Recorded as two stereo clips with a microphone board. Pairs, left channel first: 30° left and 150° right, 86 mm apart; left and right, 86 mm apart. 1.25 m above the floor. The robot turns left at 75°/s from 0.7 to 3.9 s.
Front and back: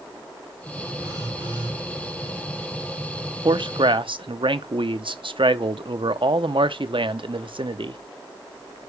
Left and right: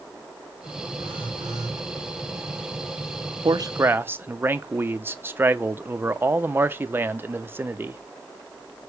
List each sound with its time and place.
1.0 s a phone buzzing: 90° right, 4.5 m; by 1.8 s 150° right, 4.5 m
3.5 s a man speaking: 120° right, 0.6 m; by 8.0 s 155° right, 0.6 m